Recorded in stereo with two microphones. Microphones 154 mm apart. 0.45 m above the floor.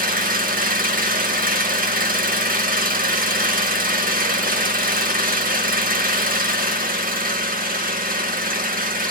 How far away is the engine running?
About 0.8 m.